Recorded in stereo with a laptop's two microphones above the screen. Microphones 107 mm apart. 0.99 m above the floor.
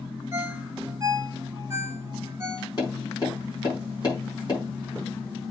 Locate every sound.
0.3 s a ringtone: 25° right (ahead or behind), 1.5 m
2.8 s tapping: 40° left (ahead or behind), 7 m